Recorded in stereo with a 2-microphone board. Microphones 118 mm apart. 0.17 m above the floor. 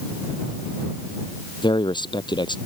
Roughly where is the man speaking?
Left.